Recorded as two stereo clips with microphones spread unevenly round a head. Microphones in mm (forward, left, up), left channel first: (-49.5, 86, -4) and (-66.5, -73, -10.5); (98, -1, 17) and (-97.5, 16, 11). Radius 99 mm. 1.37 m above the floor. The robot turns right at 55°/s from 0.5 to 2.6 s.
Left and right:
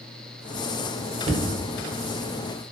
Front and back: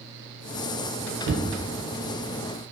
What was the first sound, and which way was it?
Knocking, 155° right.